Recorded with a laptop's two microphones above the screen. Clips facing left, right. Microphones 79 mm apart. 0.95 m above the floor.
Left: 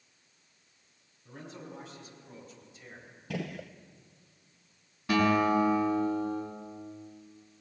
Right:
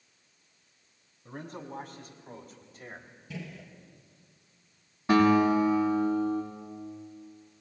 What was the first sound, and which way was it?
A man speaking, 55° right (ahead or behind).